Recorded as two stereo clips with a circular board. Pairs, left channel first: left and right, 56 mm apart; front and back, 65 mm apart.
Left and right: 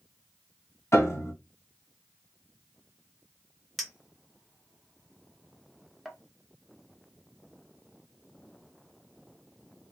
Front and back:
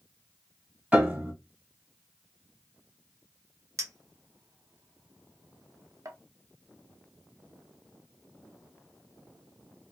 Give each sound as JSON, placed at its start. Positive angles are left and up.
{"t": 0.9, "sound": "a piano", "azimuth_deg": 115, "distance_m": 1.6}
{"t": 3.8, "sound": "a clink", "azimuth_deg": 175, "distance_m": 0.7}